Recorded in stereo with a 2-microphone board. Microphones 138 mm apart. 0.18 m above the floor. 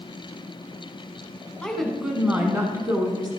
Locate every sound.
1.6 s a woman speaking: 5° left (ahead or behind), 1.1 m; by 3.3 s 30° right (ahead or behind), 1.4 m